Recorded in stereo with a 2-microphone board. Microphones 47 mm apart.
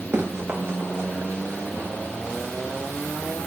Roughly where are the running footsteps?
Right.